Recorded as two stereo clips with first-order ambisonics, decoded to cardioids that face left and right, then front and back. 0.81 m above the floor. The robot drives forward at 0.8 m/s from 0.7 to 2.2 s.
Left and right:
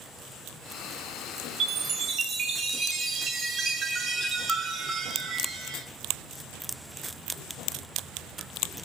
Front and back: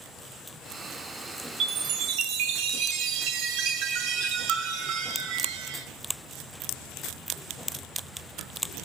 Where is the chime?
135° right, 0.7 m; by 5.9 s 155° right, 1.0 m.